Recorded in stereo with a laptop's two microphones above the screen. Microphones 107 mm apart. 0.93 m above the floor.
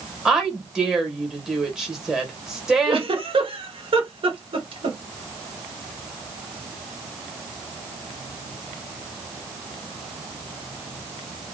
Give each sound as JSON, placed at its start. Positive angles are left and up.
{"t": 0.2, "sound": "a woman speaking", "side_deg": -5, "distance_m": 1.2}
{"t": 2.9, "sound": "a giggle", "side_deg": -60, "distance_m": 0.8}